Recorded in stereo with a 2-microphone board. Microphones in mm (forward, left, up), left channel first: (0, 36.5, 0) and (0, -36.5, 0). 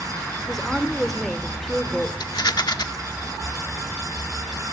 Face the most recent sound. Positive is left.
turn(degrees=70)  # may be behind; listen again after turning